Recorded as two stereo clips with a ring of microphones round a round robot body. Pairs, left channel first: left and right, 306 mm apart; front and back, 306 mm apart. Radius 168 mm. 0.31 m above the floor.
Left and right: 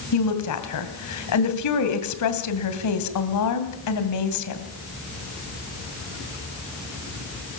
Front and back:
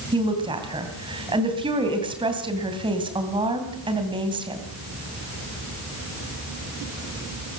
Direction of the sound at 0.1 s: 105° left.